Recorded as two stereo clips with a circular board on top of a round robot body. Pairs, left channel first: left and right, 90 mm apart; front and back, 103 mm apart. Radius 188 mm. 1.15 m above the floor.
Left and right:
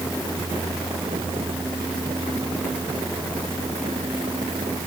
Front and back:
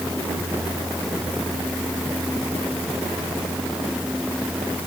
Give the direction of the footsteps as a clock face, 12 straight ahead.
I don't hear footsteps.